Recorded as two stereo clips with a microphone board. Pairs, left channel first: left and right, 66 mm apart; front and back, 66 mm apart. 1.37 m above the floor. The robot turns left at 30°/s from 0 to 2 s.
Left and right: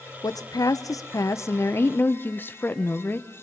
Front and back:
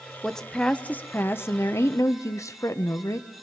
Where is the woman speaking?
85° left, 1.1 m; by 3.3 s 30° left, 1.1 m.